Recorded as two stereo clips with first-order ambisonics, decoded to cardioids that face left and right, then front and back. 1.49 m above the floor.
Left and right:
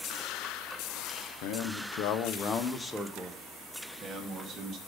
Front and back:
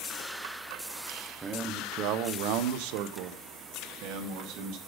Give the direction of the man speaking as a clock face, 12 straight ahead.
8 o'clock.